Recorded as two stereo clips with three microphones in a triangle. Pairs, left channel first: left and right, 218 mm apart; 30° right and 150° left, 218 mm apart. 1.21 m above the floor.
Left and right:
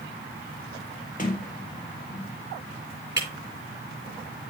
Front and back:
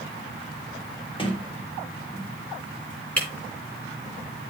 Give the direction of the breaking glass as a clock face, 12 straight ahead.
10 o'clock.